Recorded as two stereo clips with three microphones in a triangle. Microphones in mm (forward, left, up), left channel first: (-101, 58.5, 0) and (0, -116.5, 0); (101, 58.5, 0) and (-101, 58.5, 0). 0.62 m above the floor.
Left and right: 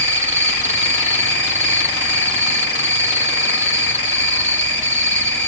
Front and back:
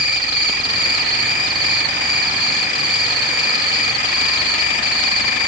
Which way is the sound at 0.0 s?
65° right.